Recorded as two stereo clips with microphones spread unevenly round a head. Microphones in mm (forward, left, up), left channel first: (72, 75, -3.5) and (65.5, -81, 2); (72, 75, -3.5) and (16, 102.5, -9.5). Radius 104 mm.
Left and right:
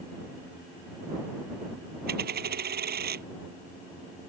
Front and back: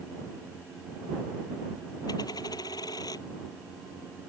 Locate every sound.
2.1 s a dropped coin: 75° right